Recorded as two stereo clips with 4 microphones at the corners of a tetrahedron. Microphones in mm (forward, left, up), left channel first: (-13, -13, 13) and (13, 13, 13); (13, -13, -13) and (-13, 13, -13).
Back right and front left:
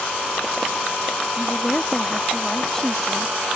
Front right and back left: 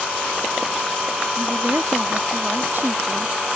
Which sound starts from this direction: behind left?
A woman speaking, at 1.4 s.